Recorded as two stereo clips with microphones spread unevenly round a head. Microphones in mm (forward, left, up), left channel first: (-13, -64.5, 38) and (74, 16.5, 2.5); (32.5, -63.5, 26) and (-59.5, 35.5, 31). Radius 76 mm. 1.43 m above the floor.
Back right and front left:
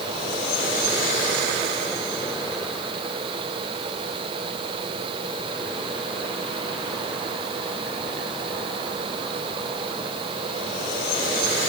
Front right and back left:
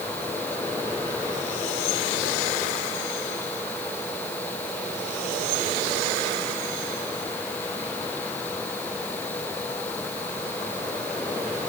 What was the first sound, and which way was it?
Only background noise.